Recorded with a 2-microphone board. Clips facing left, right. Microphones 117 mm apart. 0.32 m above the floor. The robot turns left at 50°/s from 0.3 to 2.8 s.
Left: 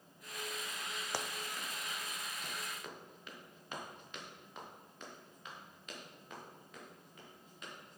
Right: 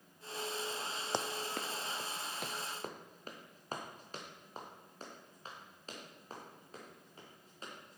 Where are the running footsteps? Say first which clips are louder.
Right 6 dB; 20° right (ahead or behind), 0.6 m; by 8.0 s 30° right (ahead or behind), 5.5 m.